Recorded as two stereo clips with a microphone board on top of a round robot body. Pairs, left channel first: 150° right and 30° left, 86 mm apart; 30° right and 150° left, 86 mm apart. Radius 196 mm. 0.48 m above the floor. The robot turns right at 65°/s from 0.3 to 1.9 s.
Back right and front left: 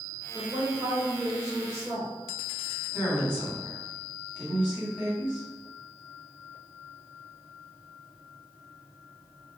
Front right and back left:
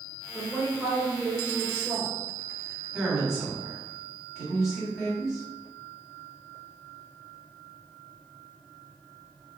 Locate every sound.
0.3 s a woman speaking: 40° left, 1.1 m; by 2.1 s 140° left, 1.1 m
2.9 s a woman speaking: 125° right, 1.8 m